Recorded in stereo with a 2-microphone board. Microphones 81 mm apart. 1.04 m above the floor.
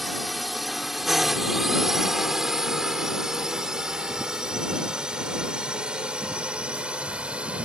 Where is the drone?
Centre (ahead or behind); by 7.7 s 10° right (ahead or behind).